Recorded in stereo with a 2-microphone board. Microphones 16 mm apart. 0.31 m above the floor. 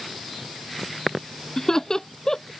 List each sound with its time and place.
1.6 s laughter: 40° left (ahead or behind)